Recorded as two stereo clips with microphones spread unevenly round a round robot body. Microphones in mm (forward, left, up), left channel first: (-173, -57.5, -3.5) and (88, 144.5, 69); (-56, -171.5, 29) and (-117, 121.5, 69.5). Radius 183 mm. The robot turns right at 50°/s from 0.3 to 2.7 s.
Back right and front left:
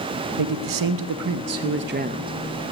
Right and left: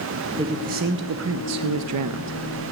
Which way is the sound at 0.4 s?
25° left.